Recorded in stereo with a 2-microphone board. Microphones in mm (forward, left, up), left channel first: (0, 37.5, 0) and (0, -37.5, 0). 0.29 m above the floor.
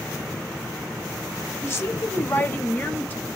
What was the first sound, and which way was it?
A woman speaking, 35° left (ahead or behind).